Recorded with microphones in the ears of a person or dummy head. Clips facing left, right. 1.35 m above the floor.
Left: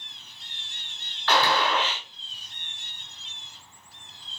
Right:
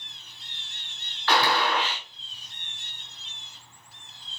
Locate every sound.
1.3 s a gunshot: 10° right (ahead or behind), 1.4 m